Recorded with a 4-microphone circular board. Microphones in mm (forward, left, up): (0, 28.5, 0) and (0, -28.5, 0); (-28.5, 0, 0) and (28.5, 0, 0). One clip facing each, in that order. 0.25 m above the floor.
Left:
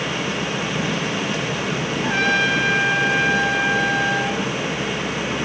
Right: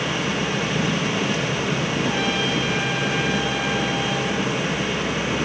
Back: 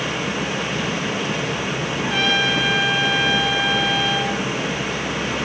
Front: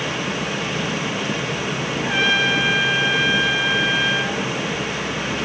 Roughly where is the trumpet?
Left.